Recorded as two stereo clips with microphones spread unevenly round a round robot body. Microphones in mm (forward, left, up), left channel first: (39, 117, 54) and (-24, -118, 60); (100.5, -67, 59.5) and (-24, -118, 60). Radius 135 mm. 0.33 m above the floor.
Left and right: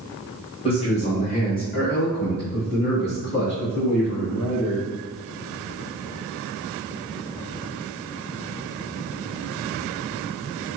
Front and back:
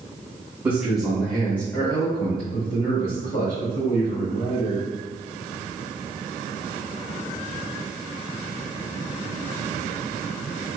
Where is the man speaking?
130° left, 1.4 m; by 4.8 s 30° left, 2.5 m.